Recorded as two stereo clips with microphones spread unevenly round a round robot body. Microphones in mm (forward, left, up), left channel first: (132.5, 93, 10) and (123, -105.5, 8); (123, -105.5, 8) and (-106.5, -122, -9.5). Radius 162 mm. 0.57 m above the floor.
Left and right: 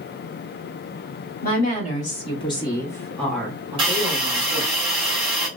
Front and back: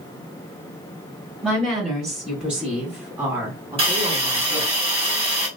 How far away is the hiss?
About 1.4 m.